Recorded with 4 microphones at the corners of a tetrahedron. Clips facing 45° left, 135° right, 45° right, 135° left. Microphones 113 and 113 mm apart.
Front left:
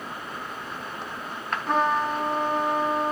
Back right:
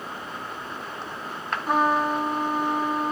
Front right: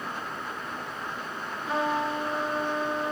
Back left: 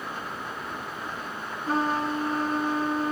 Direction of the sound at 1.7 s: 145° left.